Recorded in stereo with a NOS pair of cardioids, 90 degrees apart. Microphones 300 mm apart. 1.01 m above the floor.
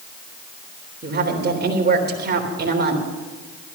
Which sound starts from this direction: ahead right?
A woman speaking, at 1.0 s.